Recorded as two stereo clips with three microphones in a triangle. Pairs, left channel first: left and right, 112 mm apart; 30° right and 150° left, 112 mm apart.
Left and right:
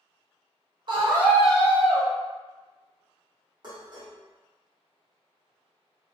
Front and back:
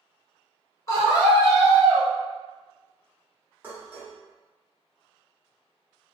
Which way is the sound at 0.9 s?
80° right.